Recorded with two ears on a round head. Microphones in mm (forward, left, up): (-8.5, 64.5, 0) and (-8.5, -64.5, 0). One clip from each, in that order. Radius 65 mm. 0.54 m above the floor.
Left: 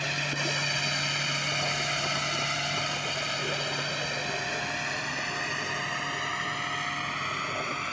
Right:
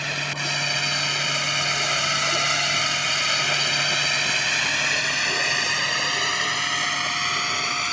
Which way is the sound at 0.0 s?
15° right (ahead or behind).